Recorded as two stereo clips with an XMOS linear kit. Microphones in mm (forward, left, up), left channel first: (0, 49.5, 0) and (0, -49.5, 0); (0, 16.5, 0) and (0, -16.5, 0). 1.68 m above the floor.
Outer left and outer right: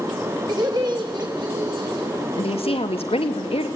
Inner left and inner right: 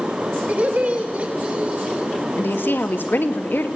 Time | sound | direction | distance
0.5 | laughter | 45° right (ahead or behind) | 7.5 m
2.4 | a woman speaking | 80° left | 2.5 m